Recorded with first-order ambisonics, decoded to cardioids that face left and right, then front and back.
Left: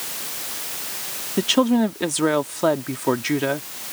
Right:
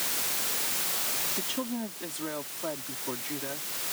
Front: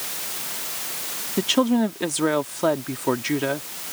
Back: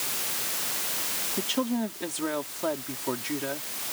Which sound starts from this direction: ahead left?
A woman speaking, at 1.4 s.